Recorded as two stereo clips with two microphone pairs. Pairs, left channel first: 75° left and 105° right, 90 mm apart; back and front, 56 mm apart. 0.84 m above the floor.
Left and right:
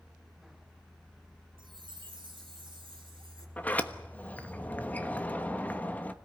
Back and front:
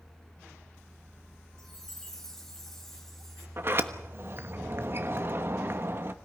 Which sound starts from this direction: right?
A chime, at 1.6 s.